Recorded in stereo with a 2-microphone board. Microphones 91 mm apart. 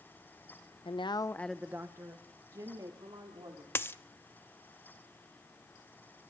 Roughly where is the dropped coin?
Left.